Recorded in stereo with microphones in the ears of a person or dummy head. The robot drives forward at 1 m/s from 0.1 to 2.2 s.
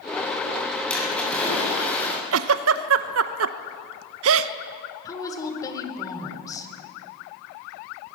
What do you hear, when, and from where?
0.9 s a splash: 10° left (ahead or behind), 7 m
2.3 s a giggle: 90° right, 0.7 m
5.0 s a woman speaking: 20° left (ahead or behind), 3 m